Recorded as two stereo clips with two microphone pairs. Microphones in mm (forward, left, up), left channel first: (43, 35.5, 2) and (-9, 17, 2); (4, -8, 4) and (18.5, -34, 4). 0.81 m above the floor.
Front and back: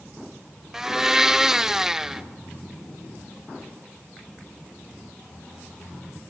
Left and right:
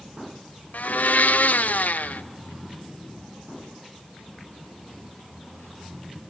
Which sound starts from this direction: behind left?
A blender, at 0.7 s.